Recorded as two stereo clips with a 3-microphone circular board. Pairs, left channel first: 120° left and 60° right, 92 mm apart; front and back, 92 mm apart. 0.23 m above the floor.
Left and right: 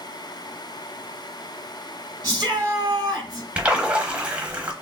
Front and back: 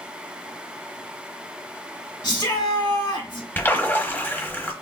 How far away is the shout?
About 2.5 m.